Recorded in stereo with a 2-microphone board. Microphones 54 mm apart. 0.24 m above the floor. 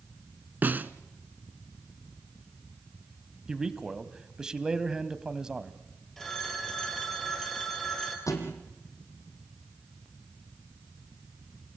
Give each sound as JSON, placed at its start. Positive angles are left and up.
{"t": 0.6, "sound": "a snare drum", "side_deg": -35, "distance_m": 0.9}
{"t": 3.5, "sound": "a man speaking", "side_deg": -15, "distance_m": 1.3}
{"t": 6.2, "sound": "a phone ringing", "side_deg": 5, "distance_m": 4.0}
{"t": 8.3, "sound": "a thud", "side_deg": 85, "distance_m": 3.5}